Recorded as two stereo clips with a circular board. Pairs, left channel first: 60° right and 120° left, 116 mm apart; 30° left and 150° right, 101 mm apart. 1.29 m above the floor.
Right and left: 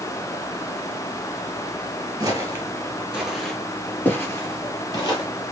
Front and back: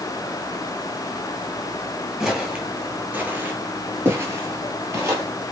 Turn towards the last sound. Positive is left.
turn(degrees=-95)